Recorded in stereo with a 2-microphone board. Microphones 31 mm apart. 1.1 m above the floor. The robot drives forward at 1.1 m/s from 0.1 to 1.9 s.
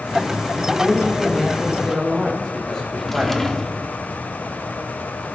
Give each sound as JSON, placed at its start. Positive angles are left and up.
{"t": 0.6, "sound": "a man speaking", "side_deg": 20, "distance_m": 1.5}
{"t": 2.9, "sound": "a drawer", "side_deg": 5, "distance_m": 1.0}